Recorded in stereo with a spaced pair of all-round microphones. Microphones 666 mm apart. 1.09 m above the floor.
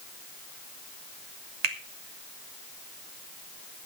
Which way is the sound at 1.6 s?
70° right (ahead or behind).